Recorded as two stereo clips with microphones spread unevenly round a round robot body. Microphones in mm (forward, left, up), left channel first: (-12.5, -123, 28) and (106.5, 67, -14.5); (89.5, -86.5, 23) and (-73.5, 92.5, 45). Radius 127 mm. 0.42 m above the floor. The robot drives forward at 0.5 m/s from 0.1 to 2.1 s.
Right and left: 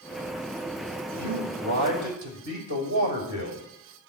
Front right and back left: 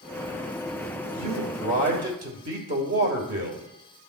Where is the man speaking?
75° left, 2.5 m; by 3.6 s 90° left, 2.5 m.